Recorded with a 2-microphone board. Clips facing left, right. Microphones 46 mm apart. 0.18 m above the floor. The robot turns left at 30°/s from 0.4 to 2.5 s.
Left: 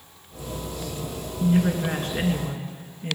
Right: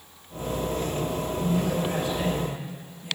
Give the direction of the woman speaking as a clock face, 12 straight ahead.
9 o'clock.